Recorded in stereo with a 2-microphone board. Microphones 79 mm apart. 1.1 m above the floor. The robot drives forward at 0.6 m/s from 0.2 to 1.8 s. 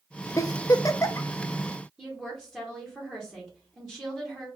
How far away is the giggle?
About 0.5 m.